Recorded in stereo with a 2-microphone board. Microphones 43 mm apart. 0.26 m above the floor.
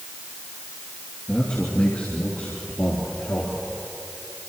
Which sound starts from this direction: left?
A man speaking, at 1.3 s.